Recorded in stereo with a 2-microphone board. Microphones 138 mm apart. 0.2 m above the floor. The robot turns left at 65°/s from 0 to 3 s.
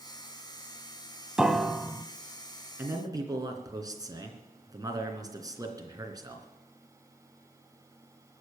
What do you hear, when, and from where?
1.4 s a piano: 5° right (ahead or behind), 0.8 m; by 2.0 s 10° left (ahead or behind), 0.8 m
2.8 s a man speaking: 15° right (ahead or behind), 3 m; by 6.5 s 25° right (ahead or behind), 3 m